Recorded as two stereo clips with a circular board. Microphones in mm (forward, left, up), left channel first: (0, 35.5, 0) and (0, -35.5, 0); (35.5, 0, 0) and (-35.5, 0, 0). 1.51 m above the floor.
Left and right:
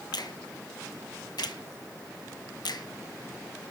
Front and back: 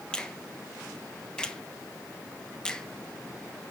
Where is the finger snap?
80° left, 1.2 m.